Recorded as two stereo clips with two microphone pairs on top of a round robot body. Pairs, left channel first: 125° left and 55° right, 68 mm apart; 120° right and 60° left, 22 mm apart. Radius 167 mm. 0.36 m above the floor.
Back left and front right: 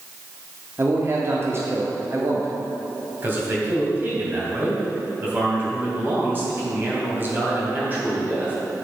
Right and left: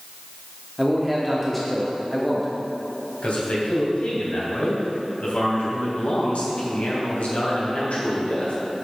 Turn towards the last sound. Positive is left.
turn(degrees=-115)